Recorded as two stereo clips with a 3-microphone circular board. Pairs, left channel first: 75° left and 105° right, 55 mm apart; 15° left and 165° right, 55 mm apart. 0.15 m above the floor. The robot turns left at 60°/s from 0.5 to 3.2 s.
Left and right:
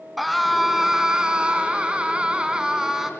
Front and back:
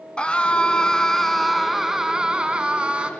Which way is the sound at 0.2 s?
20° right.